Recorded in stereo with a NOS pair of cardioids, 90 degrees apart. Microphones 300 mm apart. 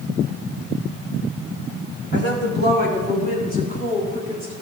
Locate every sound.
2.1 s a woman speaking: 40° left, 3 m; by 4.5 s 25° left, 4.5 m